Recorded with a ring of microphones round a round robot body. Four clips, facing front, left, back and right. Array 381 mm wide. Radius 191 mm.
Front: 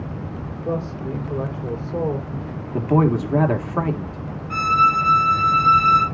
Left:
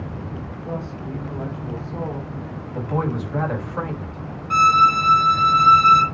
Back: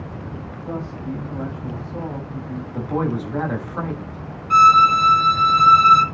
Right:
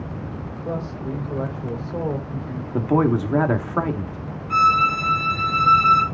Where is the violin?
150° left, 1.9 m.